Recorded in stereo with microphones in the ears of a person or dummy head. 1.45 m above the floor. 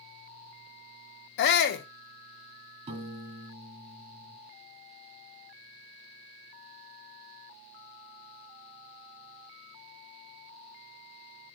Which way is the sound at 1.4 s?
75° left (ahead or behind).